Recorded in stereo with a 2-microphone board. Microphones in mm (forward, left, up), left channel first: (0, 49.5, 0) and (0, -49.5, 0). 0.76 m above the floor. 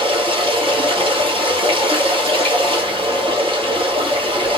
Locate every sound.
0.0 s running water: 65° right (ahead or behind), 1.2 m